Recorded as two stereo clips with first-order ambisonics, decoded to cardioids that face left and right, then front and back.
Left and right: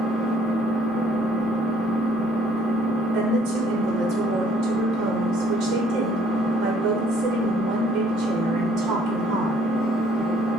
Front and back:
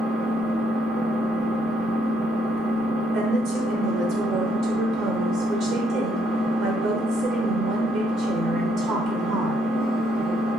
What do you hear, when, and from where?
0.0 s an engine running: 170° right, 1.2 m
3.1 s a woman speaking: 135° right, 0.8 m